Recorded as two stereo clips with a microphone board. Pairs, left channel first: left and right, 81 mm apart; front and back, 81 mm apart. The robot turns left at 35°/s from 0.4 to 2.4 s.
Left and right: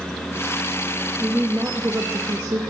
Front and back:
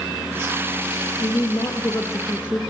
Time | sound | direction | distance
1.2 | a woman speaking | 15° right | 2.5 m